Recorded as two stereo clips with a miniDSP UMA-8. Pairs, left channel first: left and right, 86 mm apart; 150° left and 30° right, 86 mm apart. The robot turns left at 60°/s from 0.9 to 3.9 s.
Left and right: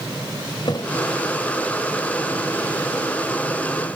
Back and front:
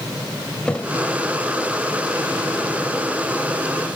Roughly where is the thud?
Left.